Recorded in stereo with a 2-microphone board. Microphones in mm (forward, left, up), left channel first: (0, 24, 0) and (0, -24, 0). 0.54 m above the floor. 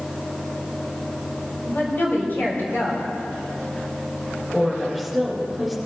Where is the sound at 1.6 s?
50° left (ahead or behind), 4 m.